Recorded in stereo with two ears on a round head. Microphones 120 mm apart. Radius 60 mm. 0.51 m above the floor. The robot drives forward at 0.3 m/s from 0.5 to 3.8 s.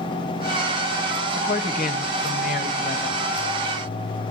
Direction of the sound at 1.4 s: 70° left (ahead or behind).